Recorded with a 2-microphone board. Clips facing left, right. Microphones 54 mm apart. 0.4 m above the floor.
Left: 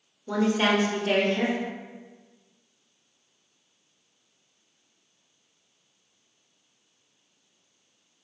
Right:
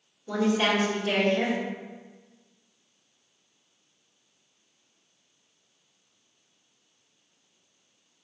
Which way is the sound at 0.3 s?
20° left (ahead or behind).